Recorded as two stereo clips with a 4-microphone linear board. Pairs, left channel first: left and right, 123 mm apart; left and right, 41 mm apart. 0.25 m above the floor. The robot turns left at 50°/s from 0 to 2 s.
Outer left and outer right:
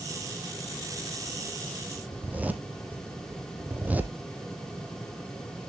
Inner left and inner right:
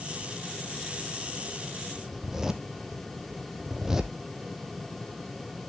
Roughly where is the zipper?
Centre.